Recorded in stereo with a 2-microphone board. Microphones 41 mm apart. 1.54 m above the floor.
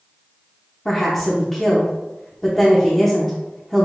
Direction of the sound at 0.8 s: 15° left (ahead or behind).